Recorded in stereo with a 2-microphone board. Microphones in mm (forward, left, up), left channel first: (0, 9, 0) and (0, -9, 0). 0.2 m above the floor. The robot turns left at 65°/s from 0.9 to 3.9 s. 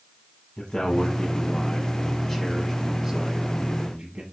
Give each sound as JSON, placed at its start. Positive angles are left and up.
{"t": 0.6, "sound": "a man speaking", "azimuth_deg": 105, "distance_m": 1.2}